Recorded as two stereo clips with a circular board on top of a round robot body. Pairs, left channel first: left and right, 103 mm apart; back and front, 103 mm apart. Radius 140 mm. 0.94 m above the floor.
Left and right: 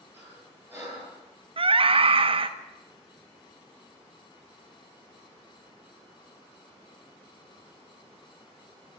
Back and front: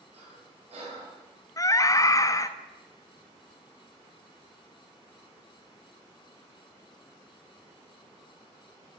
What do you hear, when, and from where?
0.1 s breathing: 20° right, 9.5 m
1.6 s a scream: 120° right, 1.4 m